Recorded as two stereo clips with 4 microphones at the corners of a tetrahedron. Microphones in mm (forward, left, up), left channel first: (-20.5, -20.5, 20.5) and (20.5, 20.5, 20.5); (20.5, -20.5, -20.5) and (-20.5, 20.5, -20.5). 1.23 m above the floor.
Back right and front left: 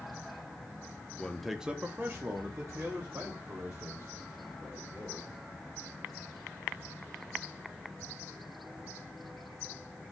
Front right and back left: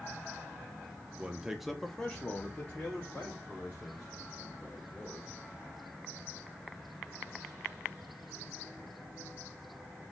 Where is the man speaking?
175° left, 0.5 m; by 5.4 s 15° left, 3 m.